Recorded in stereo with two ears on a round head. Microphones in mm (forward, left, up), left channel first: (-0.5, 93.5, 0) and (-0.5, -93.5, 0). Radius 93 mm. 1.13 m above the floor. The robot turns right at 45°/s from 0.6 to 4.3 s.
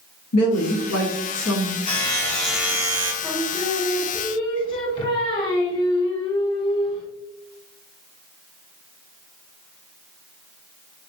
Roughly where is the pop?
I don't hear a pop.